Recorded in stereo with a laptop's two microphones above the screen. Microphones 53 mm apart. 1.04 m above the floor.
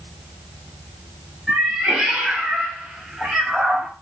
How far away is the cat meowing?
About 1.5 m.